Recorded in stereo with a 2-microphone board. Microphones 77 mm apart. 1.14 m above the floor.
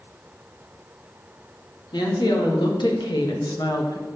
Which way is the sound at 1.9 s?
80° left.